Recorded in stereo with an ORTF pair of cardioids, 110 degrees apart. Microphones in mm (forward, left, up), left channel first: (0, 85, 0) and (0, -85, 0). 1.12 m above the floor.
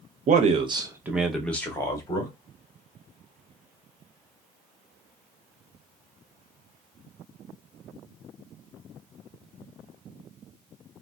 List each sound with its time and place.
0.3 s a man speaking: 45° right, 0.7 m; by 2.3 s 25° left, 1.2 m